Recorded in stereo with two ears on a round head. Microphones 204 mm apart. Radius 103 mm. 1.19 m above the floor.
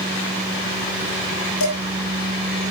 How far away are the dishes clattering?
About 3.5 m.